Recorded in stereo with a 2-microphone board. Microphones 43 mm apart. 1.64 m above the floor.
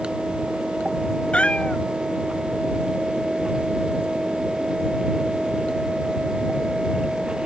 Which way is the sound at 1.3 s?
25° left (ahead or behind).